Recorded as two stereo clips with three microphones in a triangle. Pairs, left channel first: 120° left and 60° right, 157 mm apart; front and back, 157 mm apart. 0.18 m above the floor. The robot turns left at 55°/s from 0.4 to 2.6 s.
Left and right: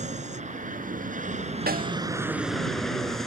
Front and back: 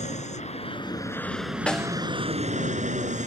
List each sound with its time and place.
0.0 s an aircraft: 30° right; by 3.3 s 150° right
1.7 s a snare drum: 85° right; by 2.0 s 100° right